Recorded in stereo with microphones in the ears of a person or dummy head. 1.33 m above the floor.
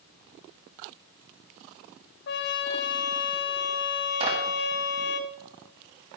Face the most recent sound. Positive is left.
turn(degrees=-30)  # may be behind; listen again after turning